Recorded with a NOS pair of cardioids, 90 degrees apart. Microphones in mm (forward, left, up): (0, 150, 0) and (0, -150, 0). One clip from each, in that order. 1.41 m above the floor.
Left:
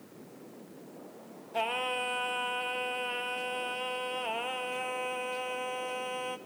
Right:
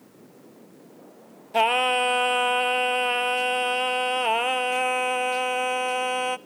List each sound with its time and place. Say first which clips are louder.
1.5 s singing: right 11 dB; 50° right, 0.7 m